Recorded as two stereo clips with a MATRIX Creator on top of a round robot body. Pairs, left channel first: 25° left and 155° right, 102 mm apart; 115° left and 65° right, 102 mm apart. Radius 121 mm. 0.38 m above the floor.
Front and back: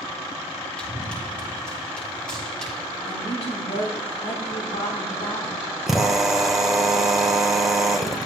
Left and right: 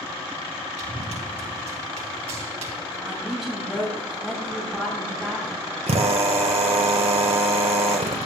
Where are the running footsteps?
55° right, 8.5 m; by 3.0 s 60° right, 6.5 m.